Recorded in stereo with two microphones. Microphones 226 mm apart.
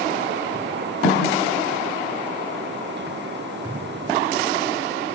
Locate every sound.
1.0 s a snare drum: 85° left, 7 m